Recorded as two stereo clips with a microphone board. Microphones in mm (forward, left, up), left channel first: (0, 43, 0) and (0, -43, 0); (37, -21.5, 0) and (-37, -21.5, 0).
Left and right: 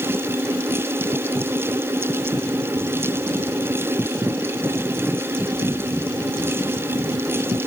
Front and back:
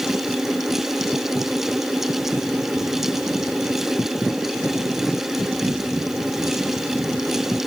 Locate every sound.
Only background noise.